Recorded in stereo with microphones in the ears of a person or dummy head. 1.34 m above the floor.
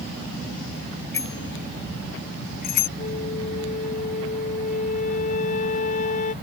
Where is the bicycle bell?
10° left (ahead or behind); by 2.9 s 50° left (ahead or behind).